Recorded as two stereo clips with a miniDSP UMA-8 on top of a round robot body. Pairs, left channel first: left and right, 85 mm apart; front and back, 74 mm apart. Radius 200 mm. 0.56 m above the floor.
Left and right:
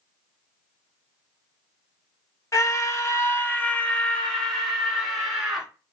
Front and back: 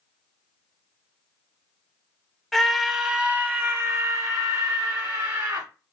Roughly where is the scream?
Left.